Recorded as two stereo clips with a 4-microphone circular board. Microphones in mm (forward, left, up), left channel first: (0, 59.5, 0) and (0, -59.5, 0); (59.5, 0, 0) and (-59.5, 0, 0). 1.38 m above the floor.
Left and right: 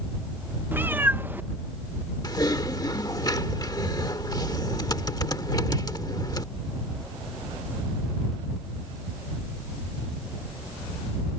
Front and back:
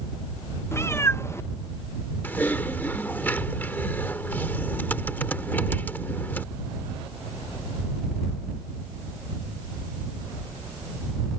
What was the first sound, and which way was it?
A cat meowing, 35° right.